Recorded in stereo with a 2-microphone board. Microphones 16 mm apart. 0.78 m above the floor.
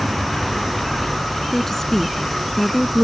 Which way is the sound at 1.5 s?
25° left (ahead or behind).